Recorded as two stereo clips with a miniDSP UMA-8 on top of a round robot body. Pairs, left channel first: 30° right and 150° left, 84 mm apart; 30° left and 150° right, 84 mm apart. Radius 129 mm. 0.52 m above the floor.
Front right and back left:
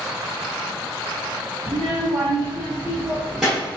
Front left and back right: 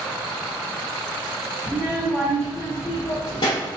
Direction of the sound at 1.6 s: 140° left.